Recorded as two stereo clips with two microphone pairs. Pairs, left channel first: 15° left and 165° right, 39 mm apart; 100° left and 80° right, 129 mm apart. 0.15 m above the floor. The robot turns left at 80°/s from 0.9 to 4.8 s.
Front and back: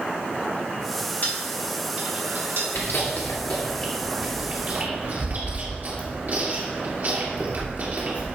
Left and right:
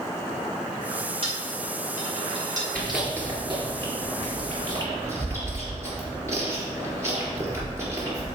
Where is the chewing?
20° left, 3 m; by 8.3 s 140° right, 3 m.